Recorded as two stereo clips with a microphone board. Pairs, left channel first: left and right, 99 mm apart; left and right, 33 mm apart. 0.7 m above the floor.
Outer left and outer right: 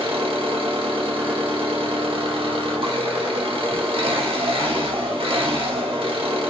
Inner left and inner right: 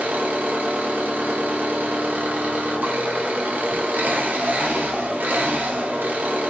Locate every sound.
0.0 s an engine running: 70° right (ahead or behind), 0.8 m